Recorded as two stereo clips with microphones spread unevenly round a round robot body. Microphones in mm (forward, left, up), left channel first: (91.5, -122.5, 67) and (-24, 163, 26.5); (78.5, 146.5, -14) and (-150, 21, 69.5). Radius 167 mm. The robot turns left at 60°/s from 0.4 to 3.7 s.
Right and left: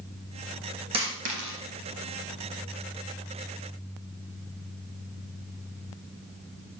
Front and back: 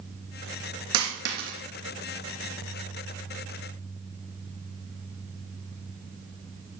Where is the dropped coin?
170° right, 3 m; by 1.6 s 150° left, 3 m.